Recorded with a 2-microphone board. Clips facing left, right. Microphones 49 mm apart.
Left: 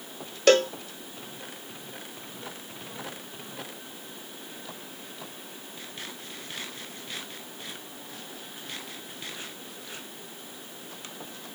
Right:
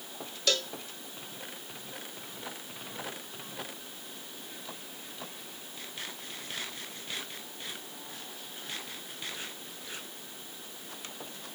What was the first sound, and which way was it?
A cowbell, 50° left (ahead or behind).